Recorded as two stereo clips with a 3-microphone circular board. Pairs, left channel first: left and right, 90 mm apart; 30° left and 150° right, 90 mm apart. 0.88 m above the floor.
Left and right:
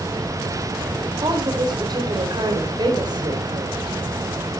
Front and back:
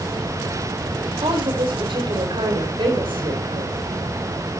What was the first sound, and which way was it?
A woman speaking, 130° right.